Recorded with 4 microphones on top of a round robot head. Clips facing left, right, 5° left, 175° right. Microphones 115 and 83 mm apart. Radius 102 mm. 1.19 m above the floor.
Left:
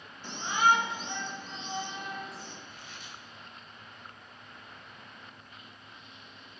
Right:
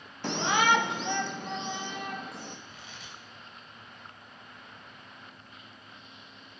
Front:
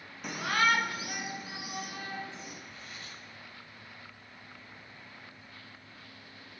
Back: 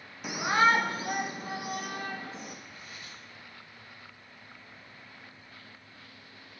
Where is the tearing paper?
95° right, 3 m.